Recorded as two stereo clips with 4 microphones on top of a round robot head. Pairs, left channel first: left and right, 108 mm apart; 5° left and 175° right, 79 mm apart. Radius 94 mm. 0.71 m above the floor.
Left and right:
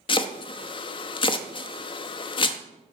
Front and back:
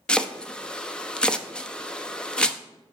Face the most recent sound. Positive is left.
turn(degrees=80)